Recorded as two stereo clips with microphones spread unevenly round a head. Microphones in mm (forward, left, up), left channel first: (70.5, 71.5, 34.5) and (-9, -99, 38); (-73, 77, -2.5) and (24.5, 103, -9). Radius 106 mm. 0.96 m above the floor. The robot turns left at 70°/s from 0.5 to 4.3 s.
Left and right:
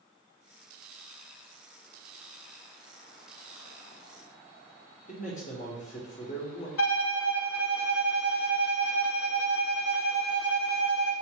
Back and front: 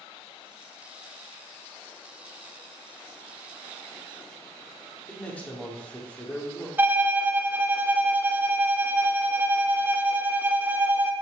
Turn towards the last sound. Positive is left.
turn(degrees=90)